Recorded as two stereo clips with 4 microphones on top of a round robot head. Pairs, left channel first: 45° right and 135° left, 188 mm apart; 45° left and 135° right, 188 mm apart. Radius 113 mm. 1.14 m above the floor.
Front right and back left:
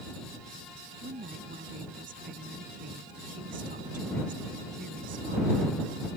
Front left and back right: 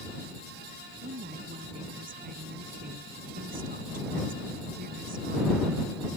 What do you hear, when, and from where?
1.0 s a woman speaking: straight behind